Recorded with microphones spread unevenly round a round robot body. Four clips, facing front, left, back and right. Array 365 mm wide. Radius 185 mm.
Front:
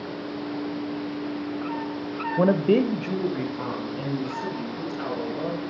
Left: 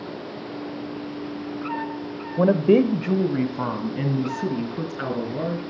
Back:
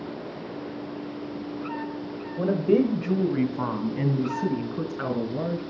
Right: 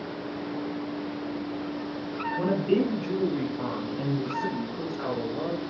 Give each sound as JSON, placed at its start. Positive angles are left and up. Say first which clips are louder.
{"t": 2.4, "sound": "a woman speaking", "louder": "left 8 dB, front 1 dB", "azimuth_deg": 45, "distance_m": 1.4}